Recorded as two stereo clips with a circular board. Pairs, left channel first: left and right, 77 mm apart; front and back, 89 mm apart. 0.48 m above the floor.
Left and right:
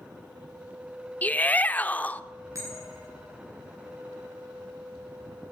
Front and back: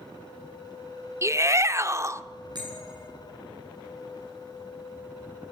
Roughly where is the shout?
Behind left.